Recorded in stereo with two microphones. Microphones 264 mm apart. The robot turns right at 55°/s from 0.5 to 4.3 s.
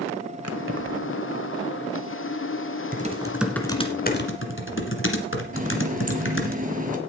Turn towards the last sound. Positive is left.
turn(degrees=-30)  # may be behind; listen again after turning